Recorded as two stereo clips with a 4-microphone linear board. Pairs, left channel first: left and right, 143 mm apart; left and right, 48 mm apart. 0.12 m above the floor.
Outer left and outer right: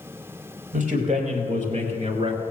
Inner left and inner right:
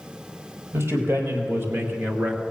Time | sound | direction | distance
0.7 | a man speaking | 65° right (ahead or behind) | 3.5 m